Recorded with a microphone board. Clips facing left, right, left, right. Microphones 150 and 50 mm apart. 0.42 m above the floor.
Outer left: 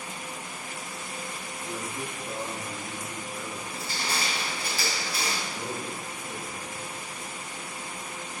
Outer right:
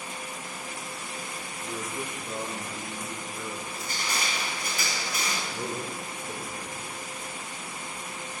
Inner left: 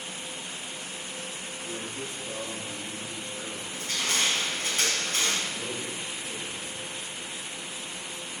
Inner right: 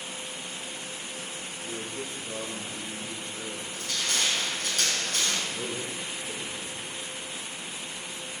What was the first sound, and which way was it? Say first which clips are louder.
A man speaking: outer right 1 dB, inner right 1 dB; 5° right (ahead or behind).